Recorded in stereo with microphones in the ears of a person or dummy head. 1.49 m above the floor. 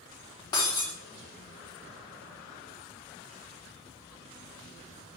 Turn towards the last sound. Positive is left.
turn(degrees=20)  # may be behind; listen again after turning